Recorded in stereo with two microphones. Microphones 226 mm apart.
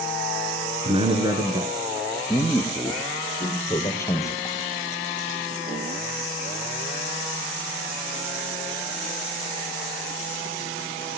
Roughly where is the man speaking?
Right.